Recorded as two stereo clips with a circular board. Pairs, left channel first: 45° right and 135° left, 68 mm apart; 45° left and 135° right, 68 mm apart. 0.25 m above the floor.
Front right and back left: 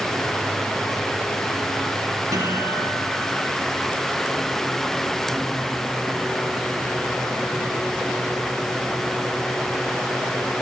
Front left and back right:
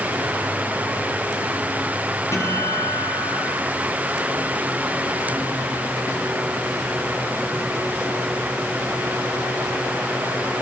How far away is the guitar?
About 9.5 m.